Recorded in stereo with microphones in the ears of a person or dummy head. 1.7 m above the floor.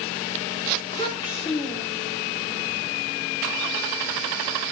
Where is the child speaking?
25° left (ahead or behind), 3.5 m; by 2.2 s 30° left (ahead or behind), 4.5 m.